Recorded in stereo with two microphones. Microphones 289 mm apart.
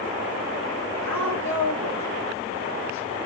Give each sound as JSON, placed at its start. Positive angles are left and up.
{"t": 1.0, "sound": "a woman speaking", "side_deg": -45, "distance_m": 5.0}